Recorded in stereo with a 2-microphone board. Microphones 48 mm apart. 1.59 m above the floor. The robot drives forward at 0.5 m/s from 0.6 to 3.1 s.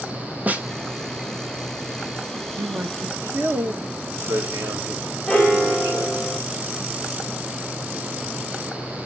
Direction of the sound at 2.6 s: 80° right.